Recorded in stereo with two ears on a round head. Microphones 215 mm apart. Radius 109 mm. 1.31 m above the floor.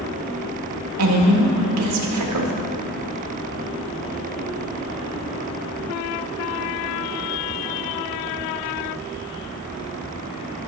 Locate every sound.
1.0 s a woman speaking: 85° right, 1.8 m